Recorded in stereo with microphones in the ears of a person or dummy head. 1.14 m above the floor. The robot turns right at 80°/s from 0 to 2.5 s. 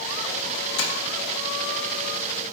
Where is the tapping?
60° left (ahead or behind), 0.8 m; by 0.9 s 50° left (ahead or behind), 0.8 m.